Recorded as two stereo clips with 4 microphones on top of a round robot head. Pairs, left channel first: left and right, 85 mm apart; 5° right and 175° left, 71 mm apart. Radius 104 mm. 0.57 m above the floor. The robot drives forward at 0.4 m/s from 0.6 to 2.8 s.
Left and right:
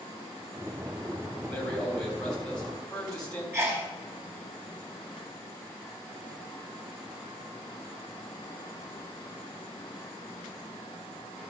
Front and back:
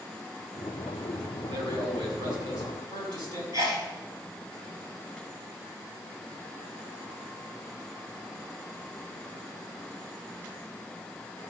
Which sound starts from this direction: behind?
A man speaking, at 1.5 s.